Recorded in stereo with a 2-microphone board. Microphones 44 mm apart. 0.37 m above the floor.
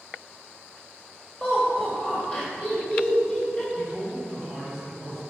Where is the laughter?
20° left (ahead or behind), 1.6 m.